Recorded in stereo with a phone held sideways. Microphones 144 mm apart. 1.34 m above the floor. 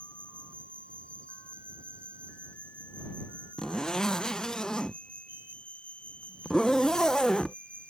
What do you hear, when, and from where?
0.0 s an insect: 10° left (ahead or behind)
3.6 s a zipper: 5° left (ahead or behind)